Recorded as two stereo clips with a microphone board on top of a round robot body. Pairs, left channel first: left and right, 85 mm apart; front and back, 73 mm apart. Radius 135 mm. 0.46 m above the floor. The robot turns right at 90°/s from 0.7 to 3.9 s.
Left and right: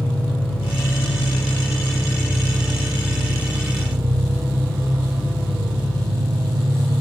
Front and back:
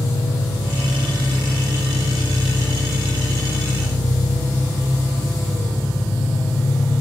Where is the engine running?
5° left, 3.5 m; by 7.0 s 65° right, 3.5 m.